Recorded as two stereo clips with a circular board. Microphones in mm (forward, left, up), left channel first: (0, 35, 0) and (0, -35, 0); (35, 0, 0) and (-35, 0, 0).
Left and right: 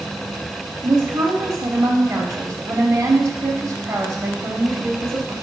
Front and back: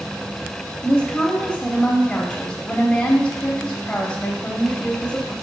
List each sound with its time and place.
0.8 s a woman speaking: 70° right, 1.2 m